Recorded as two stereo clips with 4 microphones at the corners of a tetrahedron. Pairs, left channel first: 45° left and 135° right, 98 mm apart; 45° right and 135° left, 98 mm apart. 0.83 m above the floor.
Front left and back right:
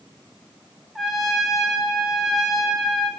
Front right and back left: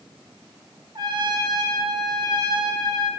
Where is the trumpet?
135° left, 0.5 m.